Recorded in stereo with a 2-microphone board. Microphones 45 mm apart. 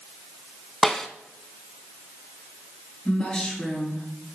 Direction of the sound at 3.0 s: 25° left (ahead or behind).